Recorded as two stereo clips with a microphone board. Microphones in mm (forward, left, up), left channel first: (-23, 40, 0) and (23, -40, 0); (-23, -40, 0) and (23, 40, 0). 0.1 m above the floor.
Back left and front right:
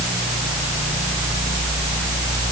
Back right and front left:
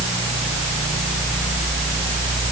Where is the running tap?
I don't hear a running tap.